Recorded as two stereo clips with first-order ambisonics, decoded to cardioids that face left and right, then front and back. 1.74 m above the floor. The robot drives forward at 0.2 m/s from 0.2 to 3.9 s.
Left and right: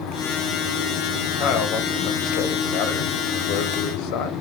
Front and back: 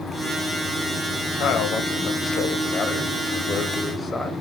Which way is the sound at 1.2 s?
45° left.